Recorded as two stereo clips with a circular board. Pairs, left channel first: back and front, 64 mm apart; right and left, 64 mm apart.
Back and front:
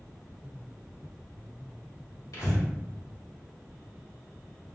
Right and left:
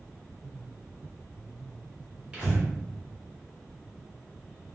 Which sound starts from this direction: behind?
Breathing, at 2.3 s.